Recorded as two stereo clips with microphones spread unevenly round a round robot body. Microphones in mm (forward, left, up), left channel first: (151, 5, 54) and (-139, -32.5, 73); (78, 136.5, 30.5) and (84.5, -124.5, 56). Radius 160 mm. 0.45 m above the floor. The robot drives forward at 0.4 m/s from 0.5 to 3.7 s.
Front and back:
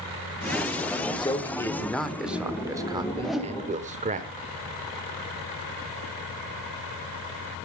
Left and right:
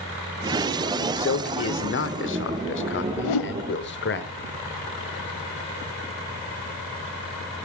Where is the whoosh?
95° left, 0.8 m; by 3.5 s 105° left, 0.8 m.